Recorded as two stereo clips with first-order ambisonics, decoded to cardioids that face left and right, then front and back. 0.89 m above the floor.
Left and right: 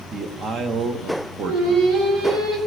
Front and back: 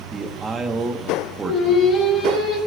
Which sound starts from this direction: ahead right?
Singing, at 1.4 s.